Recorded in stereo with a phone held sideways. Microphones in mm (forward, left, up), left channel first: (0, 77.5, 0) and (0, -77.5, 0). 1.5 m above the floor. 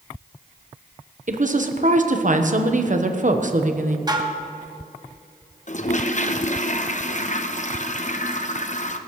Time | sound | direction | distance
1.3 | a woman speaking | 55° right (ahead or behind) | 1.1 m
4.1 | dishes clattering | 25° right (ahead or behind) | 1.2 m
5.7 | a toilet flushing | 50° left (ahead or behind) | 0.8 m